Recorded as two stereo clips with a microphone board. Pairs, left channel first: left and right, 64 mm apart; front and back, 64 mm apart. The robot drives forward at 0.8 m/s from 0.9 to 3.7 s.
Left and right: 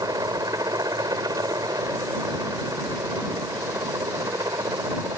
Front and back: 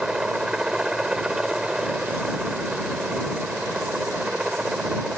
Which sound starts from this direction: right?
A helicopter, at 0.0 s.